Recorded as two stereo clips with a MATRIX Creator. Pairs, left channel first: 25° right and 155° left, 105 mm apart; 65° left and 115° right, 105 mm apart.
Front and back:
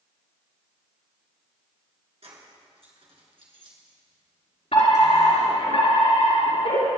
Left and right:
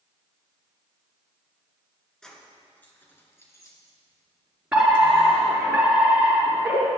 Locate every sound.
2.2 s keys jangling: 150° left, 2.5 m; by 5.7 s 100° left, 3 m
4.7 s a fire alarm: 35° right, 5.5 m